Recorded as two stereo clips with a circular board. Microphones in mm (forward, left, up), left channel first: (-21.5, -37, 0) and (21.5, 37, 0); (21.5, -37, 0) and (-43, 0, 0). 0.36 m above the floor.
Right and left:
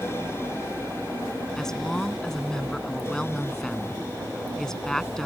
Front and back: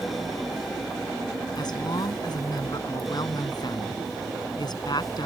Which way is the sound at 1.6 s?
35° right.